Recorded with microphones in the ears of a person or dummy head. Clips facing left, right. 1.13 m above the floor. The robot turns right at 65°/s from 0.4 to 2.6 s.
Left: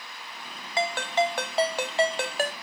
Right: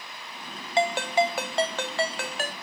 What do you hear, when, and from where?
0.8 s a ringtone: 50° right, 0.8 m; by 2.5 s 65° left, 0.8 m